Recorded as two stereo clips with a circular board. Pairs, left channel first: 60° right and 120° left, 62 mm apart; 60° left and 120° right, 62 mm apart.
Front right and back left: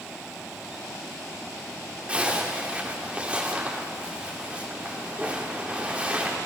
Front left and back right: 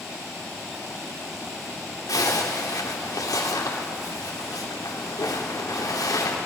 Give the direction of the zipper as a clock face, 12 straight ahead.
10 o'clock.